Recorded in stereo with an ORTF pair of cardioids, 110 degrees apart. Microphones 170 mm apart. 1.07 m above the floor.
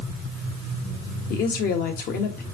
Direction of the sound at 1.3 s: 65° left.